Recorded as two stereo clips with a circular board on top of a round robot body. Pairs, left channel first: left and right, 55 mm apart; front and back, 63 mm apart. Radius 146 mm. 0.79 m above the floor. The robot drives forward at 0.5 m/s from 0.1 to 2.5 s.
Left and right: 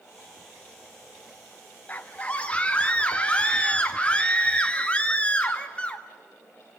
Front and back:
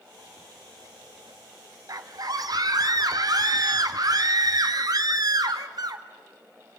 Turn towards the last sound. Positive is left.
turn(degrees=160)